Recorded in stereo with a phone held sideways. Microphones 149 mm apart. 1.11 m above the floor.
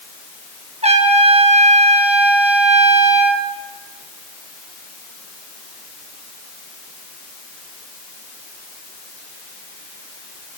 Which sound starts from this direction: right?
A trumpet, at 0.8 s.